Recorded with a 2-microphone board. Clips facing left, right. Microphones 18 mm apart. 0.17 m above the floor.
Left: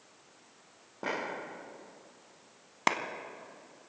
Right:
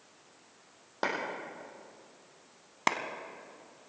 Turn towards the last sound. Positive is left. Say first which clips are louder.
# left 1 dB
turn(degrees=0)  # may be behind; listen again after turning